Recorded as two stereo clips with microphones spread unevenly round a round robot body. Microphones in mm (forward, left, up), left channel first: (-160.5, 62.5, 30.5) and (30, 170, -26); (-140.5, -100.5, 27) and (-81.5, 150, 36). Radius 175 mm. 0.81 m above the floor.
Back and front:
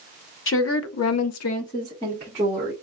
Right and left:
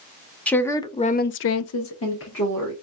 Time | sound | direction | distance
0.5 | a woman speaking | 170° left | 1.1 m